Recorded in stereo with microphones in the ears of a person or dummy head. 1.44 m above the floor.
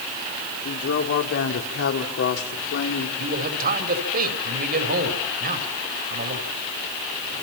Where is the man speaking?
50° right (ahead or behind), 4 m.